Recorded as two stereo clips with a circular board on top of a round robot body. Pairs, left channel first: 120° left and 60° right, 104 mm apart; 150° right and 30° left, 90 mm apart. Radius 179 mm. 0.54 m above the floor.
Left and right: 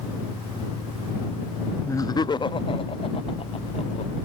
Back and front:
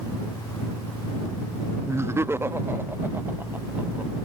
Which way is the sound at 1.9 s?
70° left.